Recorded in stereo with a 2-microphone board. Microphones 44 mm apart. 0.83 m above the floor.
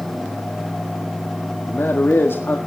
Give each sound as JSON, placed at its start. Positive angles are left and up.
{"t": 1.7, "sound": "a man speaking", "side_deg": 55, "distance_m": 1.6}